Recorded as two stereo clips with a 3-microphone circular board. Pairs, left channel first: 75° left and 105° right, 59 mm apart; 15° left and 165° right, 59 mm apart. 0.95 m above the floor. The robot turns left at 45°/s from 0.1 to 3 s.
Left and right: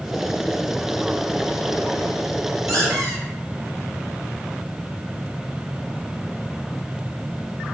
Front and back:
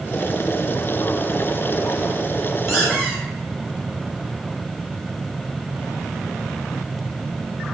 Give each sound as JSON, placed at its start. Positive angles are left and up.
{"t": 2.7, "sound": "a squeak", "azimuth_deg": -80, "distance_m": 1.0}